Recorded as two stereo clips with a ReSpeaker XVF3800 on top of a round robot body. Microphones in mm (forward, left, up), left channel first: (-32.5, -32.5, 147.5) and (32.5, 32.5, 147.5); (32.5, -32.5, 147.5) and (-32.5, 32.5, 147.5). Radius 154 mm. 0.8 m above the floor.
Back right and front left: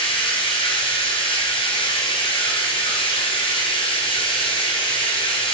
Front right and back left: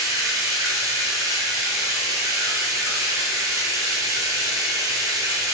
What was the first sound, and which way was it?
Running water, 165° right.